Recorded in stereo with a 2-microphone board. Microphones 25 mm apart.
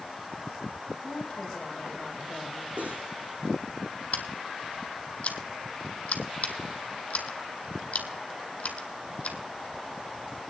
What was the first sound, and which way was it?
A woman speaking, 30° left (ahead or behind).